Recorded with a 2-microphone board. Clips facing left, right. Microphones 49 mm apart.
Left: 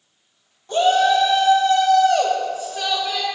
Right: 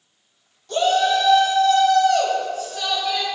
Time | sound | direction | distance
0.7 | a shout | 30° left (ahead or behind) | 1.8 m